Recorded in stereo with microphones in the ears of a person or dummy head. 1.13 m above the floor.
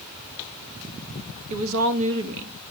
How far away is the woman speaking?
About 1.4 m.